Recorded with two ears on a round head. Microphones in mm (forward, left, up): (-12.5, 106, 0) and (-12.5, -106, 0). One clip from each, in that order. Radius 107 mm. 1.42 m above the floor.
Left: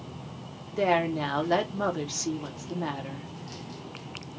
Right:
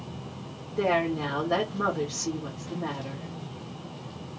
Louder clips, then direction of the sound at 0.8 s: Left 1 dB; 85° left.